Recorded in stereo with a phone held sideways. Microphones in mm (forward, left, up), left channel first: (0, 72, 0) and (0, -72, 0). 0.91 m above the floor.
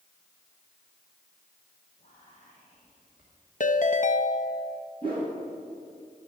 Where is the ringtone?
60° left (ahead or behind), 0.5 m.